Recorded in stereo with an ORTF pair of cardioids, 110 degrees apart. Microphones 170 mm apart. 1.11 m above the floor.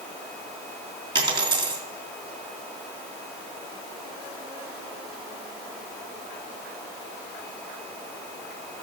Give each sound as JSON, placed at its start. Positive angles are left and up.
{"t": 1.1, "sound": "a dropped coin", "azimuth_deg": -30, "distance_m": 3.0}